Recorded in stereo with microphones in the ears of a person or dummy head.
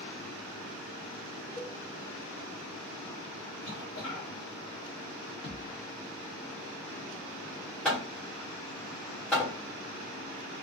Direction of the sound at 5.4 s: 30° left (ahead or behind).